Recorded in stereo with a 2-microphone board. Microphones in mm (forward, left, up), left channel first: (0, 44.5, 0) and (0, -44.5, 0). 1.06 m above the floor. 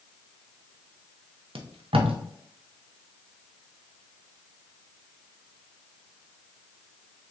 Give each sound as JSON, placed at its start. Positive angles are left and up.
{"t": 1.6, "sound": "tape being pulled", "side_deg": -70, "distance_m": 0.6}